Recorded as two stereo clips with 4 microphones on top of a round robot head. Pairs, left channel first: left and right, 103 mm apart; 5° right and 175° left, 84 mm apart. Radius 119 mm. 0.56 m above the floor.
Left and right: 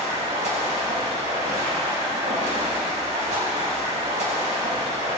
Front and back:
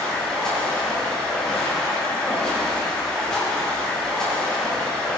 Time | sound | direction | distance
0.0 | running water | 85° right | 3.5 m